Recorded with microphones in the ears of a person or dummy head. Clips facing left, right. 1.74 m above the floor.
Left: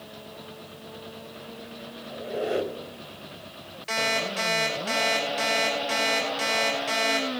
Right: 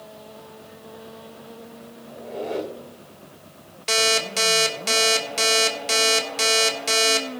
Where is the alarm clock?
60° right (ahead or behind), 3 m.